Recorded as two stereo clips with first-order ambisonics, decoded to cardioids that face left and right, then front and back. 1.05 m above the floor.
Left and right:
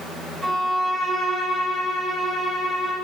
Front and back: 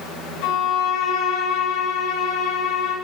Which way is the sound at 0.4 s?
10° right.